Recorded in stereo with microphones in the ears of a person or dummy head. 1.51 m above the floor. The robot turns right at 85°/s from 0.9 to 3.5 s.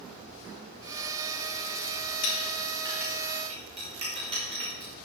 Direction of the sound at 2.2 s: 75° left (ahead or behind).